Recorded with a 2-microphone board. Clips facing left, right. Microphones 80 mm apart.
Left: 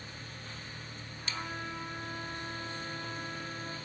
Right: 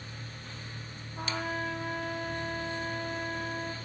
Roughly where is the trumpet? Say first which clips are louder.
Right 7 dB; right.